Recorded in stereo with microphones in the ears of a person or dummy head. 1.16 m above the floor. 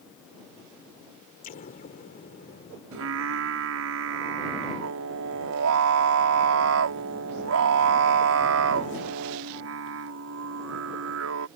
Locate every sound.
1.4 s an explosion: 45° left (ahead or behind)
2.9 s singing: 70° right (ahead or behind)